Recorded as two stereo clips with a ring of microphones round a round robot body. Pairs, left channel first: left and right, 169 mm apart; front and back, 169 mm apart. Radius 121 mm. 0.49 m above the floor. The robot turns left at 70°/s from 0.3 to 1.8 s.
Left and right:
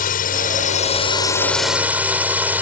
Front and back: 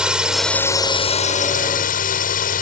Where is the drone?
95° left; by 2.6 s 15° right.